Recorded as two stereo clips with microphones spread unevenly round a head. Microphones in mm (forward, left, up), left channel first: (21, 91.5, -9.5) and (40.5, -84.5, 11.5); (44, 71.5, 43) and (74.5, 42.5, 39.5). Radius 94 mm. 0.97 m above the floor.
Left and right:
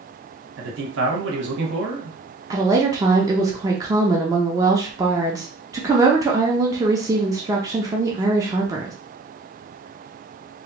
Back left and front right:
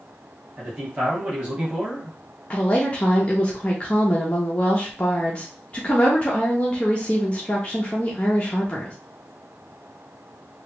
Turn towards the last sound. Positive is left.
turn(degrees=-160)